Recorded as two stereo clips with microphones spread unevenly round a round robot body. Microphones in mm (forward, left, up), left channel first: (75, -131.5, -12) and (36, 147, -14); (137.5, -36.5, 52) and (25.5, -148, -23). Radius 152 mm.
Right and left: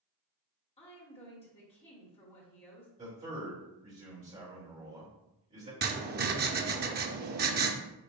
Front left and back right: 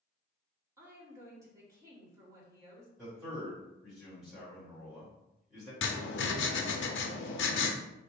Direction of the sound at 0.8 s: 145° right.